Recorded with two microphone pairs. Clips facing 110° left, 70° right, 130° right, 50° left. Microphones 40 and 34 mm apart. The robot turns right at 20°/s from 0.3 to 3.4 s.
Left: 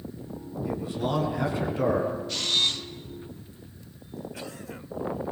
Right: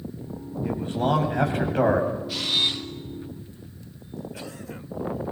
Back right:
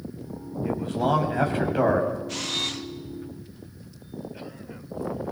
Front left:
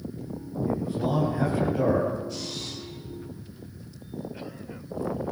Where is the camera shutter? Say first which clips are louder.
Right 1 dB, back right 6 dB; 150° right, 1.8 m; by 2.9 s 140° right, 1.8 m.